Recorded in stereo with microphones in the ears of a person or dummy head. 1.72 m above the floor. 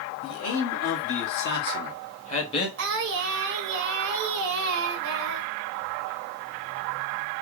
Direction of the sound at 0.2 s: 75° left (ahead or behind).